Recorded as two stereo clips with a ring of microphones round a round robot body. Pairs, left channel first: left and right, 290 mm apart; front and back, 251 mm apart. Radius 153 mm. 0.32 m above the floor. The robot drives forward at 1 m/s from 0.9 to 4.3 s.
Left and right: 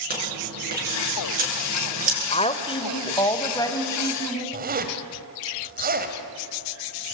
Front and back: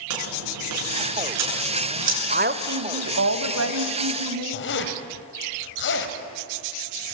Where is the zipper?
35° right, 1.8 m.